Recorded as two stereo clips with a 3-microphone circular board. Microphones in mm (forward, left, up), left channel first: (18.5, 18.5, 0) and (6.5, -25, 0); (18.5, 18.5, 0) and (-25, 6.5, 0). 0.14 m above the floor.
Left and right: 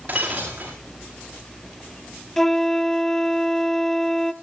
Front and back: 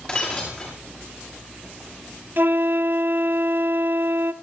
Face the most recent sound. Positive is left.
turn(degrees=155)